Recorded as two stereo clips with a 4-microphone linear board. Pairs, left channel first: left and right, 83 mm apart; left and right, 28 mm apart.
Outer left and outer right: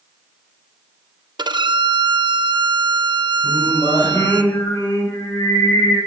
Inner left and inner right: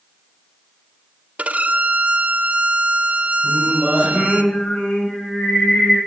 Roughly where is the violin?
Right.